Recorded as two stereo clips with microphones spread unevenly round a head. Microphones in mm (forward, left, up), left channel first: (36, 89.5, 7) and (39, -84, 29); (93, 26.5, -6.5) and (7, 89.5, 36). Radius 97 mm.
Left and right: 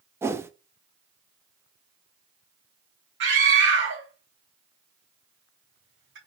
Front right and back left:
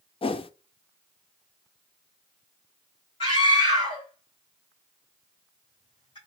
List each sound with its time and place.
0.2 s a whoosh: 10° right, 0.7 m
3.2 s a scream: 80° right, 3 m